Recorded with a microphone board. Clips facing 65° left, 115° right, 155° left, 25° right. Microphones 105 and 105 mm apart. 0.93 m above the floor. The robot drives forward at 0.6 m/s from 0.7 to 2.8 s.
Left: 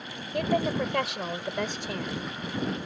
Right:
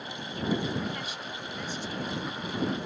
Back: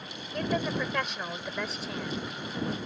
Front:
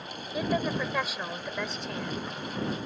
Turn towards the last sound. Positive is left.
turn(degrees=80)